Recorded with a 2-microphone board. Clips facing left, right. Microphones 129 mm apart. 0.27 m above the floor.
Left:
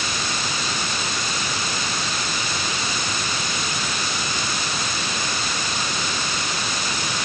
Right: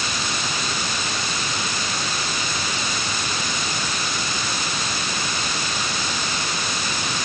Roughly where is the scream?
I don't hear a scream.